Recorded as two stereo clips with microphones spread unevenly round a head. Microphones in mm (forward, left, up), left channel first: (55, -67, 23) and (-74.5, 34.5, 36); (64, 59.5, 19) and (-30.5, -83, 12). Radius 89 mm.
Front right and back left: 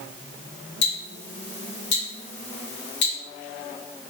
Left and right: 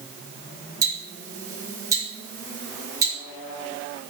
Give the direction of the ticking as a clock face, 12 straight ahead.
2 o'clock.